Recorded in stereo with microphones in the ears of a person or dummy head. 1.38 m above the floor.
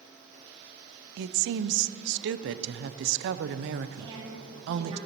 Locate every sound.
1.2 s a woman speaking: 60° right (ahead or behind), 0.6 m
4.0 s a woman speaking: 20° right (ahead or behind), 3 m